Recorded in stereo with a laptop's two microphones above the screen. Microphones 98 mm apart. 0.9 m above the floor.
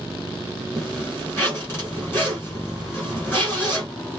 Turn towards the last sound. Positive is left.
turn(degrees=20)  # may be behind; listen again after turning